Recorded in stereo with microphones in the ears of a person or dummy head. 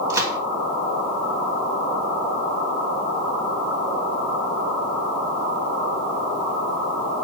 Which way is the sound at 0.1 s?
20° right (ahead or behind).